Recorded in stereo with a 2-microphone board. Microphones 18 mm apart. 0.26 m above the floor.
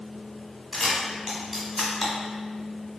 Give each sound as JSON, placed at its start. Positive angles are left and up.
{"t": 0.7, "sound": "a camera shutter", "side_deg": -10, "distance_m": 1.2}